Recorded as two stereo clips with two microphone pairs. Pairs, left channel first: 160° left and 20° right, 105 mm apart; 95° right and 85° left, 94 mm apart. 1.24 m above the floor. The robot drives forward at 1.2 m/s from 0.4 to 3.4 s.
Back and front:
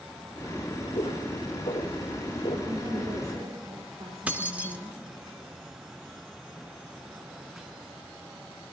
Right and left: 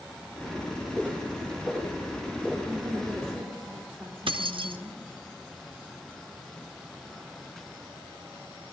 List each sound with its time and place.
0.9 s footsteps: 175° right, 6.5 m
2.6 s a woman speaking: 10° right, 4.5 m; by 5.0 s 15° right, 3.5 m
4.3 s keys jangling: 55° left, 1.0 m